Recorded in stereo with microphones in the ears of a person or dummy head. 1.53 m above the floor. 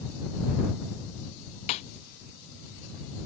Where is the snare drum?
35° left (ahead or behind).